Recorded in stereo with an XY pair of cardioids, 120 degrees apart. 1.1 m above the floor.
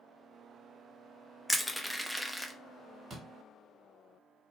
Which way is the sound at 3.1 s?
40° right.